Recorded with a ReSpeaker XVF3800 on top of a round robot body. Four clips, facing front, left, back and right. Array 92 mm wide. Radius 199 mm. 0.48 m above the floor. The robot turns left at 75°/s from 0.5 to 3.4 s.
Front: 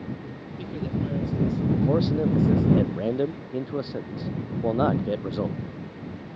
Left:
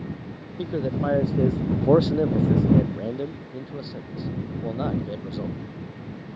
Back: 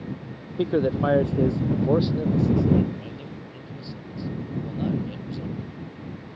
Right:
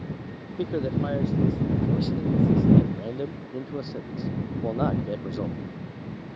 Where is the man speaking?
165° right; by 5.6 s 15° right.